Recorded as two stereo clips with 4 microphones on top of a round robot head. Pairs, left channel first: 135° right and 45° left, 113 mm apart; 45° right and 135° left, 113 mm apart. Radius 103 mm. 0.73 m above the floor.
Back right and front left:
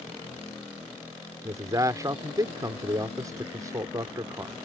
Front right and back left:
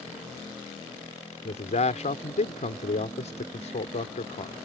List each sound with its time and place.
1.4 s a man speaking: 20° right